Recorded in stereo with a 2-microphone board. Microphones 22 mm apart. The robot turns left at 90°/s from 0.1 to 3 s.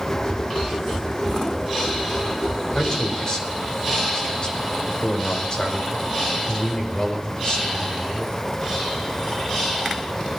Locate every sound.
2.8 s a man speaking: 25° left (ahead or behind), 5 m; by 8.3 s 45° left (ahead or behind), 5 m